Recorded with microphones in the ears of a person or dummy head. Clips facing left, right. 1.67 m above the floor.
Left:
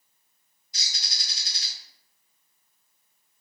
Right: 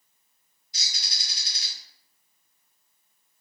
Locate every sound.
0.7 s a bird: 35° left (ahead or behind), 1.9 m